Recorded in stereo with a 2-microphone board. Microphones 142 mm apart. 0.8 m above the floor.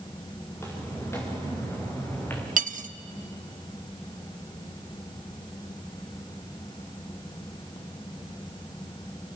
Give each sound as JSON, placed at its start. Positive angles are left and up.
{"t": 0.5, "sound": "footsteps", "side_deg": 20, "distance_m": 6.5}
{"t": 2.6, "sound": "cutlery clinking", "side_deg": -70, "distance_m": 0.6}